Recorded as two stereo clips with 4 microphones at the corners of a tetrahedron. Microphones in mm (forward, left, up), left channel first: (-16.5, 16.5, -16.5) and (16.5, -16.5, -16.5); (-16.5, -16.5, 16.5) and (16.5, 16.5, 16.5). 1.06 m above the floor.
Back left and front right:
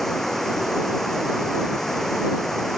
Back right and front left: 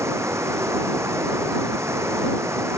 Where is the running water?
50° left.